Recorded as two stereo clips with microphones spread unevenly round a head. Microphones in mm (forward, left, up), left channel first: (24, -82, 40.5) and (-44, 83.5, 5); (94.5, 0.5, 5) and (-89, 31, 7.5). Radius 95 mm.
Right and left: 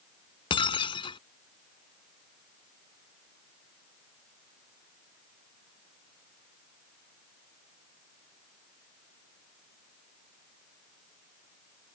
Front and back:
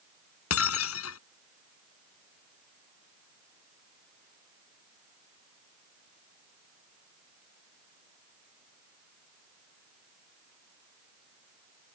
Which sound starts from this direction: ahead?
Breaking glass, at 0.5 s.